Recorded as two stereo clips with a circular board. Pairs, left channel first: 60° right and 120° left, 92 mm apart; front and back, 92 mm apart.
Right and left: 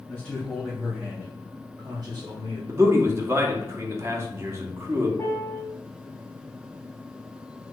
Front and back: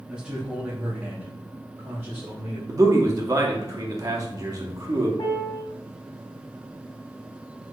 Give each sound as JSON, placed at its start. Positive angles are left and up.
{"t": 0.1, "sound": "a man speaking", "azimuth_deg": -115, "distance_m": 1.2}
{"t": 2.7, "sound": "a man speaking", "azimuth_deg": 160, "distance_m": 0.7}
{"t": 5.2, "sound": "a piano", "azimuth_deg": -5, "distance_m": 1.0}